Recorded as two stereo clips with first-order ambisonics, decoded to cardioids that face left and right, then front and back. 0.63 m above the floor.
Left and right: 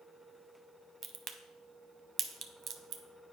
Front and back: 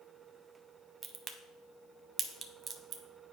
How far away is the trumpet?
I don't hear a trumpet.